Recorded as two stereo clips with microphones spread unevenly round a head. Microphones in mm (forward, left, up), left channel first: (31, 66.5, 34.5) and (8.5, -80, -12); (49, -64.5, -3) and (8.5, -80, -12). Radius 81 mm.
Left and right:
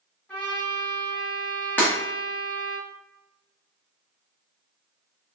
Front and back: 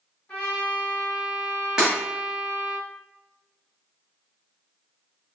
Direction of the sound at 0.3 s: 30° left.